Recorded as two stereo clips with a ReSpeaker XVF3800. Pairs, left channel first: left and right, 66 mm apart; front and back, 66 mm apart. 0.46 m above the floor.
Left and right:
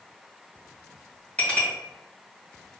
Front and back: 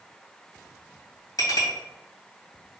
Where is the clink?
20° left, 1.7 m.